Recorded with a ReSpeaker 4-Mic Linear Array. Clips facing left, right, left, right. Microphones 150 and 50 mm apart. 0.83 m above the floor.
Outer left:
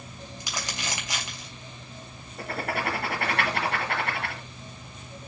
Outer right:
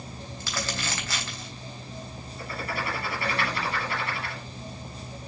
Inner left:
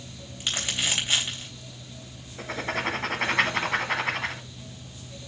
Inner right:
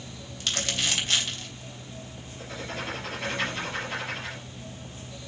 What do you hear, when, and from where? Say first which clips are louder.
0.4 s crumpling: outer right 3 dB, even; 20° left (ahead or behind), 3 m
2.4 s writing: outer left 3 dB, inner left 6 dB; 70° left (ahead or behind), 1.5 m